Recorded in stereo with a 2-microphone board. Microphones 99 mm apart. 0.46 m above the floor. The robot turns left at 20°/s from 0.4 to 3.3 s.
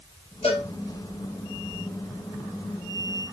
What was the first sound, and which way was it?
A cowbell, 80° left.